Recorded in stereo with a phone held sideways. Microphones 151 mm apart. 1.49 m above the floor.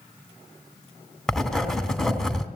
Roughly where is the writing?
Centre.